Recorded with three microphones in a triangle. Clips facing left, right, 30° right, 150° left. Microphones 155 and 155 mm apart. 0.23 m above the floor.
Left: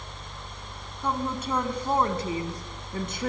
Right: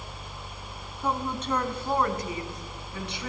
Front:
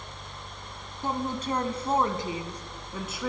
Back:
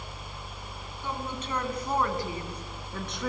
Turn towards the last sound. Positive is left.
turn(degrees=60)